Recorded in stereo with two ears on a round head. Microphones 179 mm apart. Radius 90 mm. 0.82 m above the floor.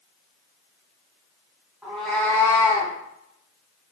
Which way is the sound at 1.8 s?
5° right (ahead or behind).